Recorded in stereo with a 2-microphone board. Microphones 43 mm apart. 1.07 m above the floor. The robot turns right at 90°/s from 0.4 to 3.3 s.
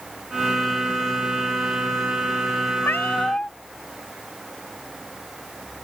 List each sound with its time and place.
2.8 s a cat meowing: 110° left; by 3.5 s 155° left